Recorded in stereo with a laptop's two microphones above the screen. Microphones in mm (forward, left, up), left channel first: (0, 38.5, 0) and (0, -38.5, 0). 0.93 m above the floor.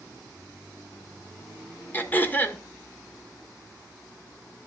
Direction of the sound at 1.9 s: 25° left (ahead or behind).